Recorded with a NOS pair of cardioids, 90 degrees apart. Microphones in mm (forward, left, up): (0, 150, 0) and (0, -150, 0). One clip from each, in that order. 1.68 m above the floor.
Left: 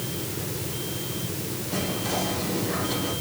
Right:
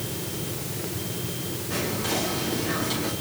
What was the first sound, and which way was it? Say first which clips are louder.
Whispering: right 1 dB; 70° right.